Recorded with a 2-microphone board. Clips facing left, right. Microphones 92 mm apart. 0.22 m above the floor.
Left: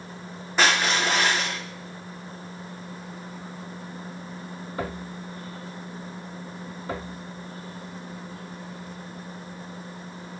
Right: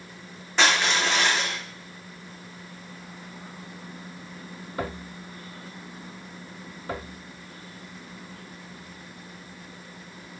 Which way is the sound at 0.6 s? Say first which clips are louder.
Left 1 dB; 5° left (ahead or behind).